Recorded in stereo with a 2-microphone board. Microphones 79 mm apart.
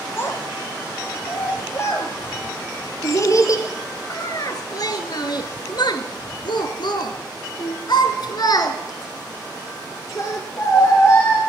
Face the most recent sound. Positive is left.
turn(degrees=30)  # may be behind; listen again after turning